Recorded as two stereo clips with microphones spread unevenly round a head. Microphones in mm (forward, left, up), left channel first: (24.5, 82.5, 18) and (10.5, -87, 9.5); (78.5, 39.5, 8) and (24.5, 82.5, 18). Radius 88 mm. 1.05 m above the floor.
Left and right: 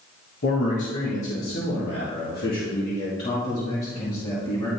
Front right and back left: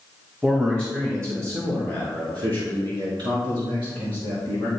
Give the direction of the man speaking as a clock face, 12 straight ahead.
10 o'clock.